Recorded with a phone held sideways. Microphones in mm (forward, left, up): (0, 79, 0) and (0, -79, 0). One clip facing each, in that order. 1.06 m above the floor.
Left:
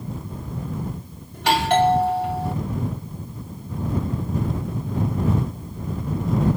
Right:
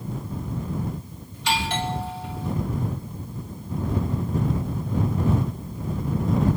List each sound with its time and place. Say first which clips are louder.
1.3 s a doorbell: left 8 dB; 65° left (ahead or behind)